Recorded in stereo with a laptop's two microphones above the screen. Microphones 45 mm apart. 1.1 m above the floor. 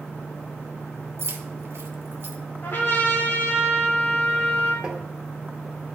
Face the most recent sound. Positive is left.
turn(degrees=-20)  # may be behind; listen again after turning